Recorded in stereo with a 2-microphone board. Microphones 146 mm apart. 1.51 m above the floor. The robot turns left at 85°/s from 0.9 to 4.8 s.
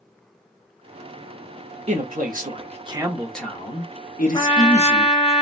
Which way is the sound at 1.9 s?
60° right.